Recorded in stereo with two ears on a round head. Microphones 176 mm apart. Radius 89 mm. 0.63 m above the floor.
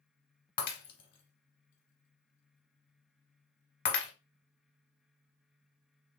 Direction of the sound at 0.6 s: 45° left (ahead or behind).